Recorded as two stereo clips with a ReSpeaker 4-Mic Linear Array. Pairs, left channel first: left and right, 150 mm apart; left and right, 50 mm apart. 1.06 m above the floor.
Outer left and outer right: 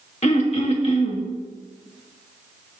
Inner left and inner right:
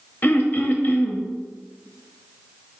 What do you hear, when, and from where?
0.2 s throat clearing: 45° left (ahead or behind), 1.0 m